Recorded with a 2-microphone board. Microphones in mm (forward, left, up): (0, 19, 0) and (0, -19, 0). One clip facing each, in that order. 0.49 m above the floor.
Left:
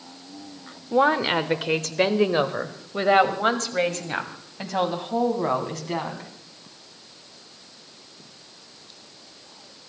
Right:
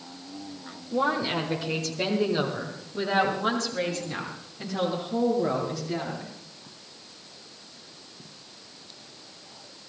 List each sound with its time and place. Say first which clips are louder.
0.9 s a woman speaking: left 6 dB; 50° left (ahead or behind), 1.1 m; by 6.3 s 65° left (ahead or behind), 3.5 m